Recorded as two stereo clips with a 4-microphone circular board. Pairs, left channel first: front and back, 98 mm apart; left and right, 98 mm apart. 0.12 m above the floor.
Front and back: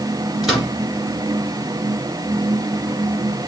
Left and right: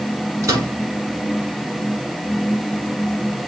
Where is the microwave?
90° right, 1.6 m.